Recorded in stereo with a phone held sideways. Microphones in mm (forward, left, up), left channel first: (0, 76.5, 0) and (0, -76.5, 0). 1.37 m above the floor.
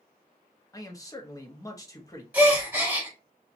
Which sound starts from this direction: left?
A man speaking, at 0.7 s.